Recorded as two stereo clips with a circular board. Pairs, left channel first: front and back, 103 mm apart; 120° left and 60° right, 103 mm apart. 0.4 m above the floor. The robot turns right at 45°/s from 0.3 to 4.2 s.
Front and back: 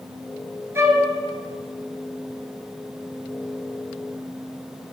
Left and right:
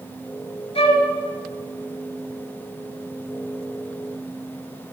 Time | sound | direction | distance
0.8 | a flute | 115° left | 1.2 m